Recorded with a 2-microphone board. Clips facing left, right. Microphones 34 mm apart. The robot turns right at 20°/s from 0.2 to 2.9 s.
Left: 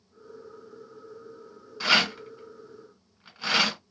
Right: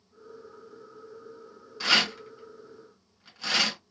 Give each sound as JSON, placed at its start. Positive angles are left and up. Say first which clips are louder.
{"t": 1.8, "sound": "a rattle", "louder": "left 1 dB", "side_deg": 10, "distance_m": 1.9}